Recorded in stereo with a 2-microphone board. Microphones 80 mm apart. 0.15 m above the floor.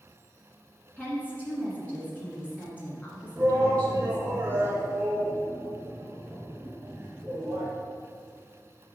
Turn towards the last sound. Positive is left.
turn(degrees=-30)  # may be behind; listen again after turning